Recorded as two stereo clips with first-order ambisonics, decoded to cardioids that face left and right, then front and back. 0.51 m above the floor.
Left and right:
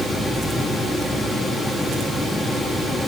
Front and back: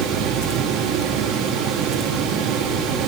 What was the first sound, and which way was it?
Only background noise.